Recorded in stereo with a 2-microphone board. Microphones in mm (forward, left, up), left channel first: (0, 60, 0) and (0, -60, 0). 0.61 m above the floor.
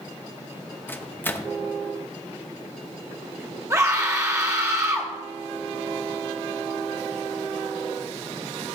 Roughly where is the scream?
Right.